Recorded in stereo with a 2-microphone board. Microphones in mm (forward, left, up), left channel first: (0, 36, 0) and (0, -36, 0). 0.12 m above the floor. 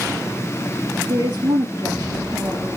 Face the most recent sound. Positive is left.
turn(degrees=-75)  # may be behind; listen again after turning